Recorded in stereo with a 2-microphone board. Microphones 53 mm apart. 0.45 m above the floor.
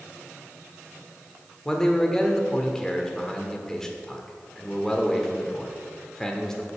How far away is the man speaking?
About 1.0 m.